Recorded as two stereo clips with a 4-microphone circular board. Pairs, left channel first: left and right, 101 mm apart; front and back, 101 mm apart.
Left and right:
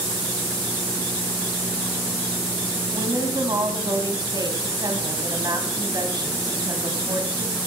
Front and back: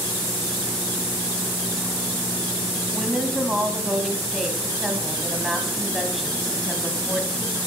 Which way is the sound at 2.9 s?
90° right.